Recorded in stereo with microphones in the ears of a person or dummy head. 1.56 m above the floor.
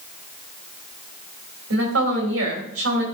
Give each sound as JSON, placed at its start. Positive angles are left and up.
{"t": 1.7, "sound": "a woman speaking", "side_deg": -80, "distance_m": 3.5}